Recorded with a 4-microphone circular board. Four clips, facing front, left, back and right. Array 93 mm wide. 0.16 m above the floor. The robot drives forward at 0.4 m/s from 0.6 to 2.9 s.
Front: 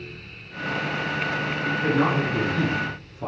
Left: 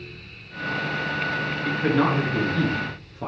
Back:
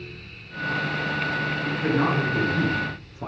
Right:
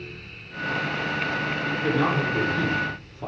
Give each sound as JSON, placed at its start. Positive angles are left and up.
{"t": 1.6, "sound": "a man speaking", "azimuth_deg": 95, "distance_m": 3.0}